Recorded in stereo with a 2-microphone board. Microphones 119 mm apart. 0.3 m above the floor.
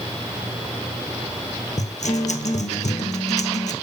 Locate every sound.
1.8 s a guitar: 85° left, 1.3 m